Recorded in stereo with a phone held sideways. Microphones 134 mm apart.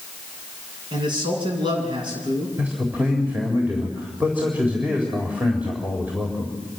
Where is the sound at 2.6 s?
15° right (ahead or behind), 4 m.